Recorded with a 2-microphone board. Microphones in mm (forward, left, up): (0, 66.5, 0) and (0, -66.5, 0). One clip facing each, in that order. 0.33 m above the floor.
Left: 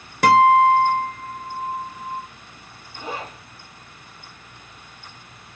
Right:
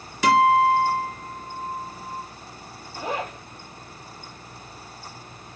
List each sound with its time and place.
0.2 s a guitar: 55° left (ahead or behind), 0.8 m
3.0 s a zipper: 50° right (ahead or behind), 0.7 m